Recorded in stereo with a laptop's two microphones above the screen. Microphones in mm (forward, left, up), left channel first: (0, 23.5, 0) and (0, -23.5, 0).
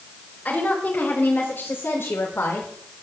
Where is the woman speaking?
25° left (ahead or behind), 5.5 m; by 2.7 s 65° left (ahead or behind), 4.5 m.